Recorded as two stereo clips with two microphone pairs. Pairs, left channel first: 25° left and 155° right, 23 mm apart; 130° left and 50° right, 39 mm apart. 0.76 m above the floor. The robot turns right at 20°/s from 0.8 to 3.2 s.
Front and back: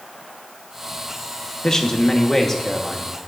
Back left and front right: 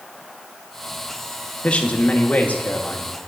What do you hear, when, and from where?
1.6 s a man speaking: 75° left, 1.1 m; by 3.3 s 105° left, 1.1 m